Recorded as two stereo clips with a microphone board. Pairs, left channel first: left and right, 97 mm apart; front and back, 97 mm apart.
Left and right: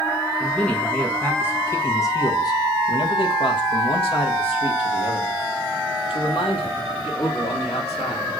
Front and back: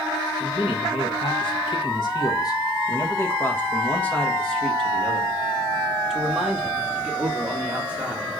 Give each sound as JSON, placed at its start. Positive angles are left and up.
{"t": 0.4, "sound": "a man speaking", "azimuth_deg": 5, "distance_m": 1.7}